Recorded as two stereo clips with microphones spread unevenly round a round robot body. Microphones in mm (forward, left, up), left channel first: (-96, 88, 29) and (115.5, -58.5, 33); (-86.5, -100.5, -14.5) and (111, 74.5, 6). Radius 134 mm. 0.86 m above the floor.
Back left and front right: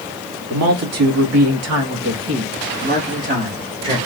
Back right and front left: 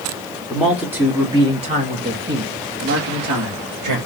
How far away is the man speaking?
About 2.0 m.